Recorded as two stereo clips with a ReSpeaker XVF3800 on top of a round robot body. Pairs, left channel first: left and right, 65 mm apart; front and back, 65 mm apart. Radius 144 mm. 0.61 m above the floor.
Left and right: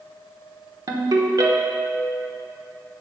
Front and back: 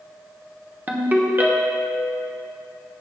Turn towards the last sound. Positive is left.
turn(degrees=-115)